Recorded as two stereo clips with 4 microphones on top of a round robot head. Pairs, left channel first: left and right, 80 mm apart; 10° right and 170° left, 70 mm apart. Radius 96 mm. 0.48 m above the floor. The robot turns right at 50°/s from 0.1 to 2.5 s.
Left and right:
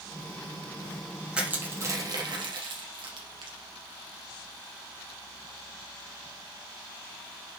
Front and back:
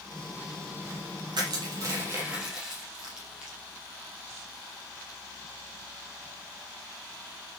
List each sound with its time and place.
1.3 s crushing: 170° right, 4 m; by 3.6 s 115° right, 4 m